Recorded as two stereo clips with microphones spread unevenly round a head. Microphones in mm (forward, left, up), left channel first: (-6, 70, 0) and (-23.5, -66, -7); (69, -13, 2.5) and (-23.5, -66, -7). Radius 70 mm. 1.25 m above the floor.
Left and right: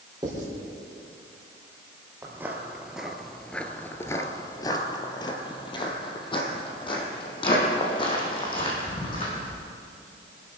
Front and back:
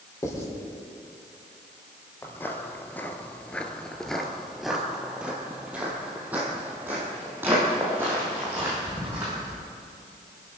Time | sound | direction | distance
0.2 | writing | 30° right | 5 m
2.2 | footsteps | 25° right | 1.6 m